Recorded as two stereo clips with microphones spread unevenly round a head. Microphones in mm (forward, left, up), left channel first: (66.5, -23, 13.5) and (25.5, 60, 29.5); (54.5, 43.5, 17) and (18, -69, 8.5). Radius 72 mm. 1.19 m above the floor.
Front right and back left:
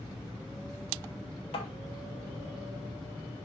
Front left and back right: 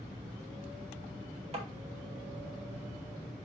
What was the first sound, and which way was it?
Tapping, 75° right.